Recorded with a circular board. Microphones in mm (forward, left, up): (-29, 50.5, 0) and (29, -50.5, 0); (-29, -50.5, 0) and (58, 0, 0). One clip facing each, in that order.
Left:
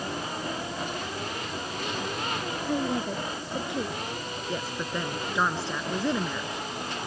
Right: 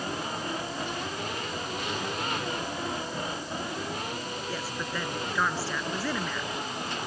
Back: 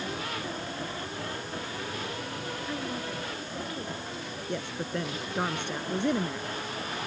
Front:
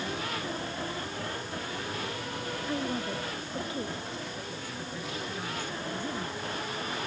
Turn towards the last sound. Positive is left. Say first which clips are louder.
# left 4 dB, back 6 dB
turn(degrees=-170)